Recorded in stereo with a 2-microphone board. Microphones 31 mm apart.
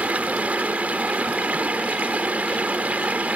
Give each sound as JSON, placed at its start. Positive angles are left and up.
{"t": 0.0, "sound": "running water", "side_deg": -55}